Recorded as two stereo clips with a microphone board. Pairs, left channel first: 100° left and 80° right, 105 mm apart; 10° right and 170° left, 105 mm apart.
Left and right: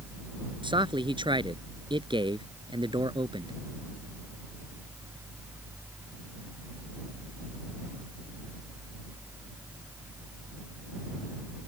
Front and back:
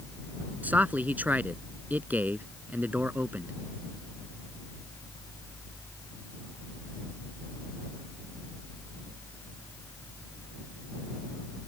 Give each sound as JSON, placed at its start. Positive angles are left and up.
{"t": 0.6, "sound": "a man speaking", "azimuth_deg": -115}